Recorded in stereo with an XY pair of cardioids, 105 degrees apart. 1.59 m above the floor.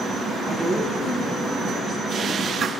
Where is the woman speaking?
35° right, 5 m.